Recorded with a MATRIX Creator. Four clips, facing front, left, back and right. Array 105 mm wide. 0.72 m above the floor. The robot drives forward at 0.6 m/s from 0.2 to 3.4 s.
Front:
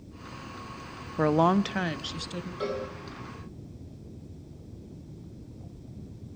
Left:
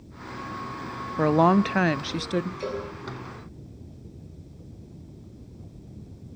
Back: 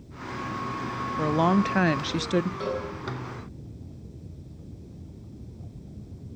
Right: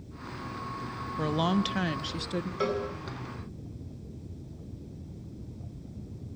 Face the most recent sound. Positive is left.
turn(degrees=-95)